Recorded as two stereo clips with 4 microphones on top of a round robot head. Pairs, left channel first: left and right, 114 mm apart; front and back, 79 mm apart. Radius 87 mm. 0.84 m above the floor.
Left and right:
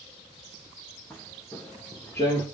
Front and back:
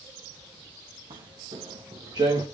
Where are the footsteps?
170° left, 3.5 m; by 2.5 s 150° left, 3 m.